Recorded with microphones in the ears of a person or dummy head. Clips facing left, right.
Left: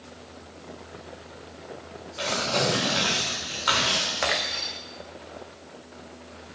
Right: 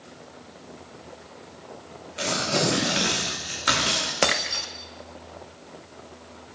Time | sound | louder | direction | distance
2.2 | tearing paper | right 1 dB | 40° right (ahead or behind) | 3.5 m
4.2 | breaking glass | right 5 dB | 50° right (ahead or behind) | 1.5 m